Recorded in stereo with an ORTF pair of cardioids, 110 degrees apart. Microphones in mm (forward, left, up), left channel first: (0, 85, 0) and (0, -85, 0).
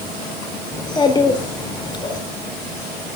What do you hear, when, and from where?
0.7 s a child speaking: 25° left, 3.5 m